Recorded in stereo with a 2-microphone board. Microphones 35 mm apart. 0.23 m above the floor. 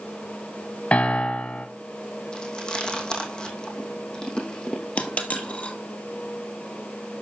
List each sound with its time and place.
0.9 s a piano: 40° left (ahead or behind), 1.2 m
2.3 s chewing: 25° left (ahead or behind), 2.5 m
5.0 s a dropped coin: 45° left (ahead or behind), 1.9 m